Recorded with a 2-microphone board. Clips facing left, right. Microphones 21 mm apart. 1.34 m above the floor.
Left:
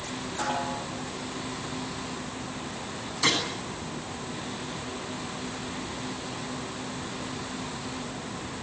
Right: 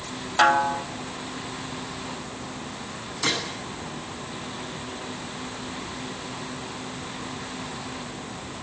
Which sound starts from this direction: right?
A snare drum, at 0.4 s.